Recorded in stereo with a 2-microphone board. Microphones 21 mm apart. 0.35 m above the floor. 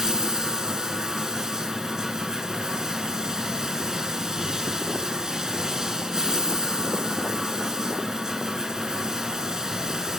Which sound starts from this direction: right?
Running water, at 0.0 s.